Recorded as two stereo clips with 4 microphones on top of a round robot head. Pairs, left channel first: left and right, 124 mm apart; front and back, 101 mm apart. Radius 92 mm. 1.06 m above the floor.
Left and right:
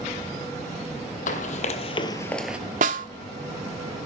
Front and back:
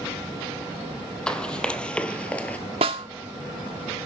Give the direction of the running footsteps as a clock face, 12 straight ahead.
9 o'clock.